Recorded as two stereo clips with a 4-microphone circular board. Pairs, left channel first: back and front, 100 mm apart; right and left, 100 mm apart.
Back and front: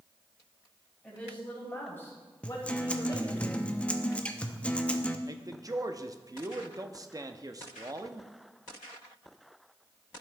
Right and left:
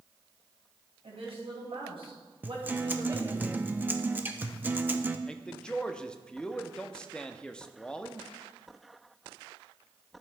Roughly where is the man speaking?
Ahead.